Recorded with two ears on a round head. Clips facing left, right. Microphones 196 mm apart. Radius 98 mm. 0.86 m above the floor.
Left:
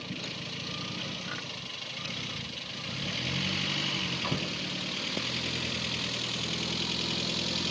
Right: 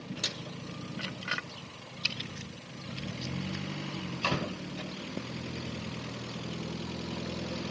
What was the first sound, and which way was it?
Only background noise.